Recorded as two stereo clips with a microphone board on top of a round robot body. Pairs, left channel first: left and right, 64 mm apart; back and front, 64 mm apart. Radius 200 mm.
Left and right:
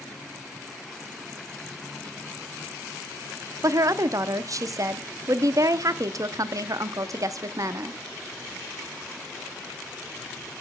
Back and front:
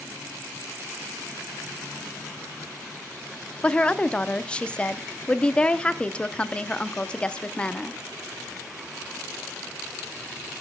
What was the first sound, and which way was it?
A woman speaking, 110° right.